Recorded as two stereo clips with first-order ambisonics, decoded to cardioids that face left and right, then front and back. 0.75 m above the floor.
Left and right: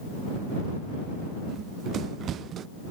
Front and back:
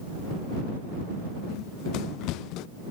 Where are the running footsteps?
35° right.